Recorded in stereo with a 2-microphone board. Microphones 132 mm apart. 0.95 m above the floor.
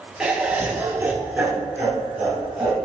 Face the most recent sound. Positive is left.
turn(degrees=-10)  # may be behind; listen again after turning